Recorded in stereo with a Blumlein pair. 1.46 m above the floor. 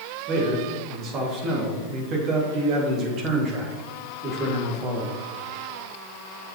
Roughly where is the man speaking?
Ahead right.